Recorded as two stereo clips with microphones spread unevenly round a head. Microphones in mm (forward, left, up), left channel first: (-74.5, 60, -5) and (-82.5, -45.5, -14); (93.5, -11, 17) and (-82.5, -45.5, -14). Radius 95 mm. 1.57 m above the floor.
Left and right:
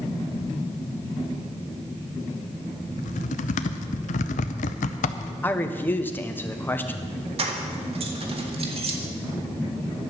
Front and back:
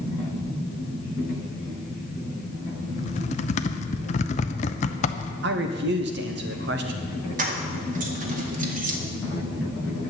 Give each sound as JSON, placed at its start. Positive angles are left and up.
{"t": 3.0, "sound": "typing on a keyboard", "azimuth_deg": 70, "distance_m": 0.5}
{"t": 5.4, "sound": "a man speaking", "azimuth_deg": 160, "distance_m": 1.3}
{"t": 7.4, "sound": "keys jangling", "azimuth_deg": -120, "distance_m": 1.9}